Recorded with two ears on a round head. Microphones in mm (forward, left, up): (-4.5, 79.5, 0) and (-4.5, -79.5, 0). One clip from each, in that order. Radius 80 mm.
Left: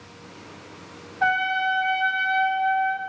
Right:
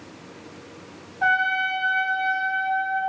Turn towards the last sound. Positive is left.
turn(degrees=30)  # may be behind; listen again after turning